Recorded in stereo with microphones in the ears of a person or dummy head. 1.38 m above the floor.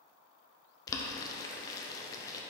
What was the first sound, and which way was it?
Boiling, 20° left (ahead or behind).